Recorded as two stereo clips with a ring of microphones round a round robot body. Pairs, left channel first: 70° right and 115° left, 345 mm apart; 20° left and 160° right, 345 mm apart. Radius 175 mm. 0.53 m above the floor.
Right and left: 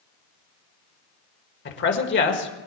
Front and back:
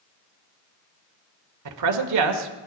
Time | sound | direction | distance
1.6 | a man speaking | 125° right | 1.7 m